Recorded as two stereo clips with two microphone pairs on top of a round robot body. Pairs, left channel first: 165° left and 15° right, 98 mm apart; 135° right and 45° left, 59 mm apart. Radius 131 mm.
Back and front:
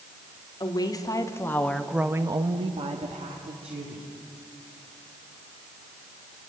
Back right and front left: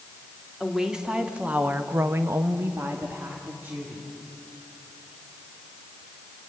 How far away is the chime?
I don't hear a chime.